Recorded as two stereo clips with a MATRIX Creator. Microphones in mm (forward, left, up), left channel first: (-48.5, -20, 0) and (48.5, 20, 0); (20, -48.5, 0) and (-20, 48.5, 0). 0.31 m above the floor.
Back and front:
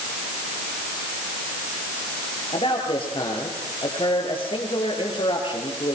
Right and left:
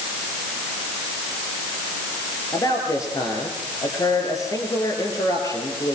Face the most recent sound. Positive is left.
turn(degrees=-125)